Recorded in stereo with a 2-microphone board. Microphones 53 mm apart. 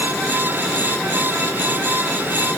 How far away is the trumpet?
I don't hear a trumpet.